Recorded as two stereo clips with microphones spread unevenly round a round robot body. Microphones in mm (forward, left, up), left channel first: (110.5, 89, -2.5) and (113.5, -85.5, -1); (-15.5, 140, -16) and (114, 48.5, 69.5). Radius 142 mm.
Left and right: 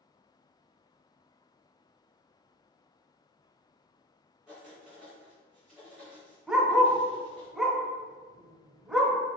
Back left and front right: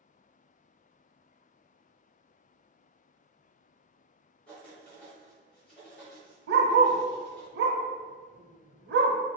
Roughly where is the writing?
Behind.